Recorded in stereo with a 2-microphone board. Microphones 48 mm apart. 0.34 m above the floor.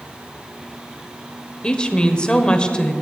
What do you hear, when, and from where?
1.6 s a woman speaking: 20° left (ahead or behind), 1.1 m